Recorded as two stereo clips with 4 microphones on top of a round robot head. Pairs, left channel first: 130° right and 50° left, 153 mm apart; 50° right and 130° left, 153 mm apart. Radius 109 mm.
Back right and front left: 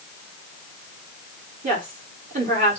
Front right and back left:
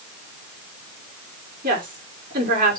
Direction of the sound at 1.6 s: 90° left.